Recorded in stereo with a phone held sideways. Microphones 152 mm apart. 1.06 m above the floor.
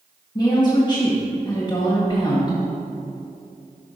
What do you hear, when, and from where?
0.3 s a woman speaking: 30° left (ahead or behind), 1.6 m